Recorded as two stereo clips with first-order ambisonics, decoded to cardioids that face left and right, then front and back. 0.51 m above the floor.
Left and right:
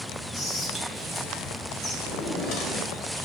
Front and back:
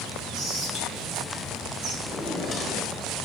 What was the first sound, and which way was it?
Whispering, 145° left.